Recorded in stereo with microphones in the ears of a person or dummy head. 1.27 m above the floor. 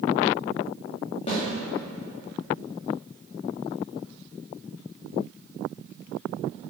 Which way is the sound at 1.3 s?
25° left (ahead or behind).